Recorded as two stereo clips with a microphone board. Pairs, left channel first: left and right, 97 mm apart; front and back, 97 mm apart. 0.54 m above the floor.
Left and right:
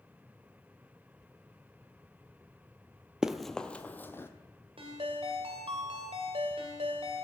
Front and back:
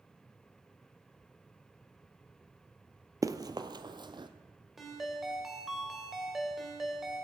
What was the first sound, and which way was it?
Running footsteps, 170° right.